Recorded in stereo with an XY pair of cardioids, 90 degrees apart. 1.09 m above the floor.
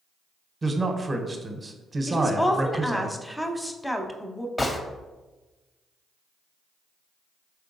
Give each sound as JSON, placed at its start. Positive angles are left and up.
{"t": 0.6, "sound": "a man speaking", "azimuth_deg": -30, "distance_m": 0.7}
{"t": 2.1, "sound": "a woman speaking", "azimuth_deg": 5, "distance_m": 0.7}
{"t": 4.6, "sound": "a gunshot", "azimuth_deg": 25, "distance_m": 0.6}